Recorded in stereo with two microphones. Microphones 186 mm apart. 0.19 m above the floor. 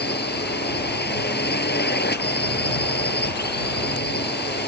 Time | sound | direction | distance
0.0 | a drone | 65° left (ahead or behind) | ?